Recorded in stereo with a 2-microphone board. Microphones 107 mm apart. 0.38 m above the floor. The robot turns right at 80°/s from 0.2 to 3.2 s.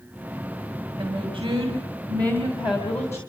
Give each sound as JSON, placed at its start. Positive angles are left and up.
{"t": 1.0, "sound": "a woman speaking", "azimuth_deg": -145, "distance_m": 3.0}